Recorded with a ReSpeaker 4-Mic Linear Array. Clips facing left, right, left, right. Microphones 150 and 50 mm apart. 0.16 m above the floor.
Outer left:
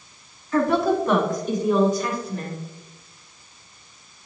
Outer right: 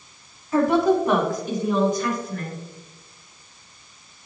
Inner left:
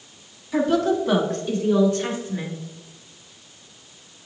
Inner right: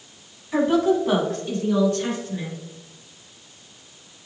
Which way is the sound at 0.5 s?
25° right (ahead or behind).